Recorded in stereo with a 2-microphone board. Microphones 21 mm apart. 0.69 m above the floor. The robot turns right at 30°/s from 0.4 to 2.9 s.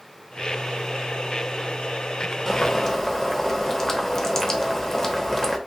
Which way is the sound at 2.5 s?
25° left (ahead or behind).